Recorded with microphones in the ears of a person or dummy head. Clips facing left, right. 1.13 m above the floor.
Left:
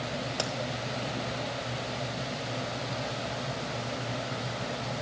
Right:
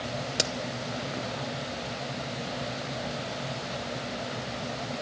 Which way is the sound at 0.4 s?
25° right (ahead or behind).